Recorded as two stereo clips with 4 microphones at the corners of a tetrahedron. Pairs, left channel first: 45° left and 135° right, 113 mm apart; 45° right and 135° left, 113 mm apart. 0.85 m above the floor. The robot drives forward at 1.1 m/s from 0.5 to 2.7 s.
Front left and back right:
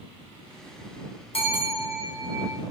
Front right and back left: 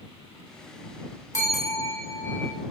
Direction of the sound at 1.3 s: 15° left.